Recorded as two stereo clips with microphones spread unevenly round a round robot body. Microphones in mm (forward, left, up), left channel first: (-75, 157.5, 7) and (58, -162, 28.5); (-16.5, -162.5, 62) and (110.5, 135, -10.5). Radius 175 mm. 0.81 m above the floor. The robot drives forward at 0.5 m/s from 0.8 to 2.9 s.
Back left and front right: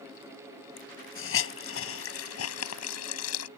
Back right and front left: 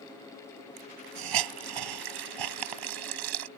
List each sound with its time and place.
0.8 s a hiss: 55° left; by 3.5 s 65° left